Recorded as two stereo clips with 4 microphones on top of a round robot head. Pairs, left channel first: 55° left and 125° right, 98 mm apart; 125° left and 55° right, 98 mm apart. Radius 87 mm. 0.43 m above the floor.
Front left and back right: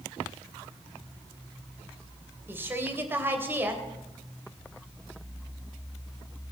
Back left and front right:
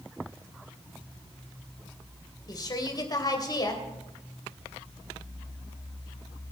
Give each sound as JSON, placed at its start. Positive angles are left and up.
{"t": 2.5, "sound": "a woman speaking", "azimuth_deg": 170, "distance_m": 2.5}